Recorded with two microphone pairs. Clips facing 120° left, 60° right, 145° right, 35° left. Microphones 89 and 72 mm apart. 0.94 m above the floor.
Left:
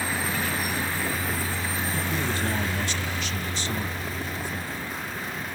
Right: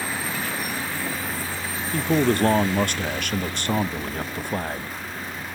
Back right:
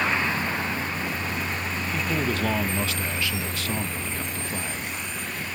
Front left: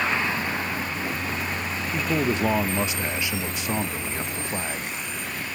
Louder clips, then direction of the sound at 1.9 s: Right 13 dB, front left 3 dB; 35° right.